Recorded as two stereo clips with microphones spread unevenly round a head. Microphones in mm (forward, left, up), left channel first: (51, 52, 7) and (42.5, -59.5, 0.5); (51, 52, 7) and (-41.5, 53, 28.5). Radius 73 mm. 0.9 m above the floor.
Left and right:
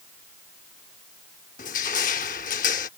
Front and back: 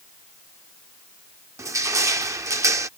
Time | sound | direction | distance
1.6 | crushing | 120° left | ?